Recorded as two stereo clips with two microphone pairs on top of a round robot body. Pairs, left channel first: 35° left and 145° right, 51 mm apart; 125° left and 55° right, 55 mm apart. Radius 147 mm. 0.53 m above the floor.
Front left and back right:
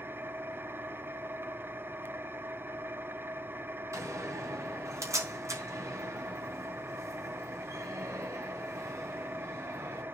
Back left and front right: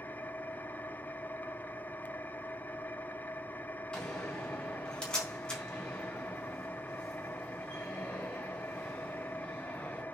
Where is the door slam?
160° right, 4 m.